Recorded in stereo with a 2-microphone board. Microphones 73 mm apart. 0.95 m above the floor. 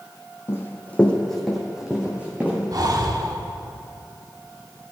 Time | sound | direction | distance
0.5 | running footsteps | 35° left (ahead or behind) | 1.6 m
2.7 | breathing | 55° right (ahead or behind) | 0.7 m